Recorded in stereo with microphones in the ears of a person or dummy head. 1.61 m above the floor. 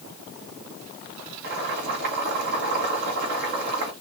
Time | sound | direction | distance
1.4 | boiling | 55° right (ahead or behind) | 3 m